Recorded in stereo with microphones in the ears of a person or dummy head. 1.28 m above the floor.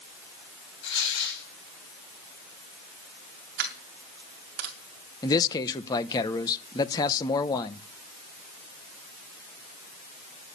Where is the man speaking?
25° left (ahead or behind), 0.9 m.